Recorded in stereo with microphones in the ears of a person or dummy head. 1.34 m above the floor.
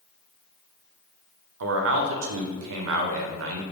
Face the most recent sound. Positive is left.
turn(degrees=-70)  # may be behind; listen again after turning